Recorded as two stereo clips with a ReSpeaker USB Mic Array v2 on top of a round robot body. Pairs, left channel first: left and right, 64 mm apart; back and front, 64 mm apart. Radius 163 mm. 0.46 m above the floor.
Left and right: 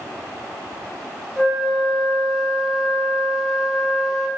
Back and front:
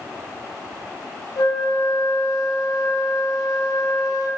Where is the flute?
Straight behind, 0.5 m.